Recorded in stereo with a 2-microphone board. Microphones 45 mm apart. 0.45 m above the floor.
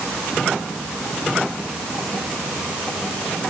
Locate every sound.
Only background noise.